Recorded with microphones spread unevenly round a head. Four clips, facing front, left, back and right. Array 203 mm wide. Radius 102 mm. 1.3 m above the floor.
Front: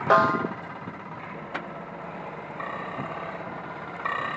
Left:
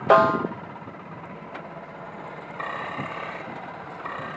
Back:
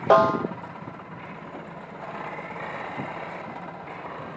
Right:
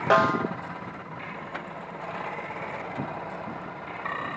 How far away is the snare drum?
About 0.5 m.